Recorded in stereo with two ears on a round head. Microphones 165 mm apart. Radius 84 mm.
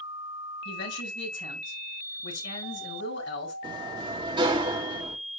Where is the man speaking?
65° left (ahead or behind), 5 m.